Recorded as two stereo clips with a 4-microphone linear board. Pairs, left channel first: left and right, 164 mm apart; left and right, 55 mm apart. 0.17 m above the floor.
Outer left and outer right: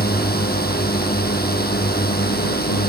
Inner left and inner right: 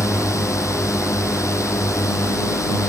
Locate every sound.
0.0 s a drone: 70° left (ahead or behind)